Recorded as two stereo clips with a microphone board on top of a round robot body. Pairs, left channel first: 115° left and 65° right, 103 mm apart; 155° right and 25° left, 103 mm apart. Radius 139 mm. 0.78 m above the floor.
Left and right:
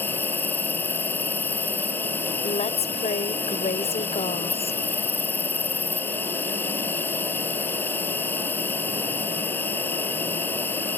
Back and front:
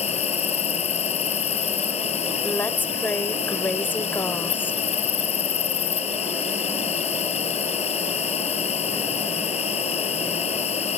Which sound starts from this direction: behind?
An insect, at 0.0 s.